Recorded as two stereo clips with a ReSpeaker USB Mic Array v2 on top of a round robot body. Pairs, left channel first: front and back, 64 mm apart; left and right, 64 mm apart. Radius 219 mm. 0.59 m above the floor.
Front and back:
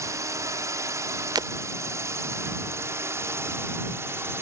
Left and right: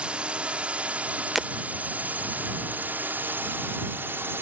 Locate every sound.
0.0 s a drone: 160° right; by 4.4 s 135° right
1.4 s breaking glass: 175° right